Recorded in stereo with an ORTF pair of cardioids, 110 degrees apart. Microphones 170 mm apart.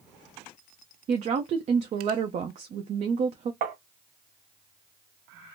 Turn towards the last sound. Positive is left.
turn(degrees=-60)